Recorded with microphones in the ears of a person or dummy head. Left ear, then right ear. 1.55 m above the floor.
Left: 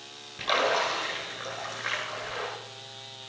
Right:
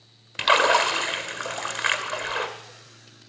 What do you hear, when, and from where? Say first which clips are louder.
0.4 s a splash: right 7 dB; 50° right (ahead or behind), 1.8 m